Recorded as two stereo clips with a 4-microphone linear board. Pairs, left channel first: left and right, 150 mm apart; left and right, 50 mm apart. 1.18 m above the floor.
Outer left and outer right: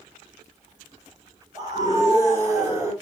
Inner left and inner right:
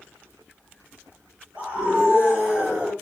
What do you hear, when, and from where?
1.6 s a scream: 25° right (ahead or behind), 6.5 m; by 2.9 s 20° right (ahead or behind), 6 m